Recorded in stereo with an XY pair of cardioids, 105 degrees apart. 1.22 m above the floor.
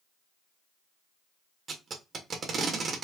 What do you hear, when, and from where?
1.7 s tape being pulled: 50° right, 1.3 m